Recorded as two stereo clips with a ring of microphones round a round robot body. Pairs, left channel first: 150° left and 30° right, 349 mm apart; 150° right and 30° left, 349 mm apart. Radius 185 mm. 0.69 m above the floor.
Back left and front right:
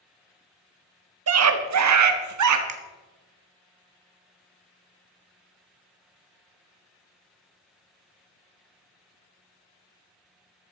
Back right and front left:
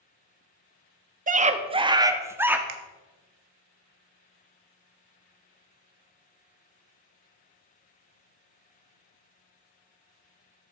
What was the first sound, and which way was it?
A scream, 25° right.